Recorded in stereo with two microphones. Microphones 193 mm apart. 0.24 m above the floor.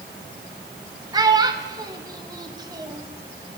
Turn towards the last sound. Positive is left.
turn(degrees=-20)  # may be behind; listen again after turning